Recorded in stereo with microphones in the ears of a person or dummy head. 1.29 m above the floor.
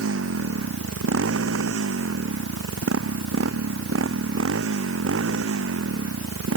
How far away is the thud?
I don't hear a thud.